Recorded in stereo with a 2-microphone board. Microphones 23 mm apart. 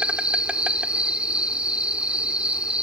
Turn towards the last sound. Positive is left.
turn(degrees=-55)  # may be behind; listen again after turning